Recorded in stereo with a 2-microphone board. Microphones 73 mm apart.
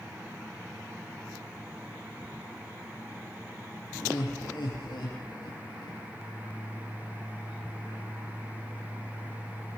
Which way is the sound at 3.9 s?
85° left.